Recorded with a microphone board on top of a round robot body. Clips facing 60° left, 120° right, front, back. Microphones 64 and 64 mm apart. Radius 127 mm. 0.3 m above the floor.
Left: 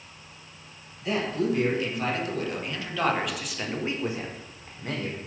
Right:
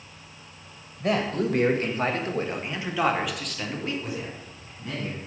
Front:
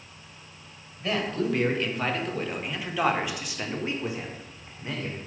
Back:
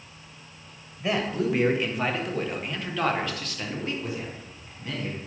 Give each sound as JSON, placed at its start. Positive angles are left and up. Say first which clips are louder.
{"t": 1.0, "sound": "a man speaking", "louder": "right 2 dB, back 1 dB", "azimuth_deg": -105, "distance_m": 1.8}